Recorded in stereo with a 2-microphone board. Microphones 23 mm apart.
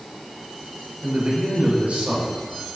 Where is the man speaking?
70° right (ahead or behind), 3 m.